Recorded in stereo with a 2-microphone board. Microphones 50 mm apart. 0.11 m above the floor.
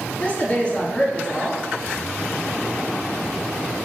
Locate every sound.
0.2 s a woman speaking: 20° left (ahead or behind), 2 m